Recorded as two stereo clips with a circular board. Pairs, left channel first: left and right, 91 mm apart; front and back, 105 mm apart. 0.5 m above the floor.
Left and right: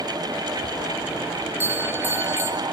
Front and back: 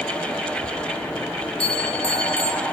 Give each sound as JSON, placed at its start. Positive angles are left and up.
{"t": 1.6, "sound": "a bell", "azimuth_deg": -25, "distance_m": 1.5}